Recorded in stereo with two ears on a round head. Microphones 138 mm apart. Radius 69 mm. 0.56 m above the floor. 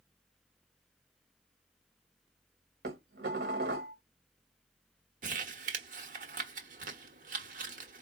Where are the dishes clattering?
65° right (ahead or behind), 1.6 m.